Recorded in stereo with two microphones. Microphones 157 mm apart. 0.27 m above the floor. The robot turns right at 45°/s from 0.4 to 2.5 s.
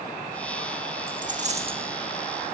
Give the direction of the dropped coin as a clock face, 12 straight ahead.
2 o'clock.